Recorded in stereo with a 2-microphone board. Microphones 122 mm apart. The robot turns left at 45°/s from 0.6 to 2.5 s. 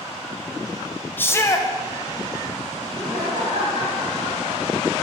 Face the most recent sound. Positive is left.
turn(degrees=-75)  # may be behind; listen again after turning